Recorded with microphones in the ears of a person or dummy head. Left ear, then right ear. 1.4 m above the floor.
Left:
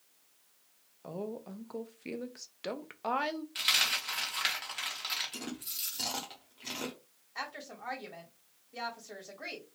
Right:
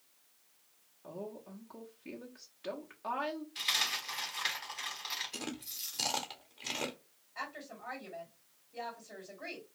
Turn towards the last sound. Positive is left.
turn(degrees=75)  # may be behind; listen again after turning